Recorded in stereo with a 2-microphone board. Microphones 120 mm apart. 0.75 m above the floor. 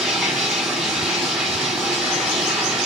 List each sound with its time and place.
0.0 s running water: centre (ahead or behind), 5 m